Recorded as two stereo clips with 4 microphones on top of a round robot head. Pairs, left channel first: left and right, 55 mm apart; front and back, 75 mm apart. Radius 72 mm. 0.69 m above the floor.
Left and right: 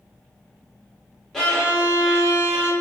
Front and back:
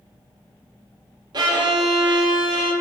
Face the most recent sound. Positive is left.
turn(degrees=175)